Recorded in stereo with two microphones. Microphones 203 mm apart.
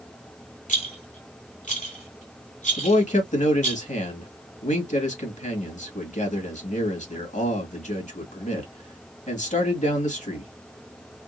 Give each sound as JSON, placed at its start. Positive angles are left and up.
{"t": 0.7, "sound": "a rattle", "side_deg": 35, "distance_m": 2.5}
{"t": 2.8, "sound": "a man speaking", "side_deg": 35, "distance_m": 1.7}